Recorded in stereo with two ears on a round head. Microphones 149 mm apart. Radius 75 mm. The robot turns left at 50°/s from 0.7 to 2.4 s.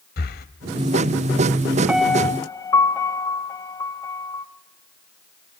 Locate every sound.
0.2 s breathing: 60° left (ahead or behind), 1.0 m
1.9 s a piano: 5° right (ahead or behind), 1.1 m; by 4.5 s 20° left (ahead or behind), 1.1 m